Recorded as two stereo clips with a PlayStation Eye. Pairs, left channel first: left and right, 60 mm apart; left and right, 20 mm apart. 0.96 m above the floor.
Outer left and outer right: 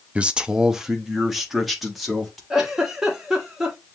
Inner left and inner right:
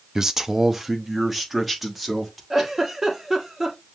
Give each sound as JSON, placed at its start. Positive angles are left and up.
{"t": 0.1, "sound": "a man speaking", "side_deg": -25, "distance_m": 0.5}
{"t": 2.5, "sound": "a giggle", "side_deg": -10, "distance_m": 1.3}